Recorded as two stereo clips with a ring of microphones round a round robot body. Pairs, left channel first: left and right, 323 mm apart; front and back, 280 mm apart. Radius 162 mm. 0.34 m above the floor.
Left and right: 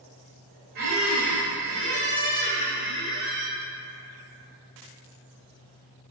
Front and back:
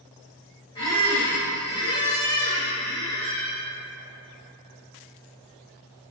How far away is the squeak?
About 1.0 m.